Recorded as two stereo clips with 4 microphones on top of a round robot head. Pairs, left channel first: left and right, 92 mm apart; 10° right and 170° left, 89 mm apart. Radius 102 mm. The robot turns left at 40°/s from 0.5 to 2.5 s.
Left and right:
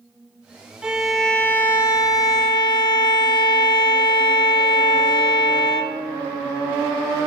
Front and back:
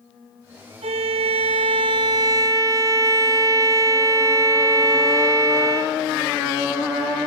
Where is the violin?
170° right, 0.8 m; by 6.0 s 120° left, 0.8 m.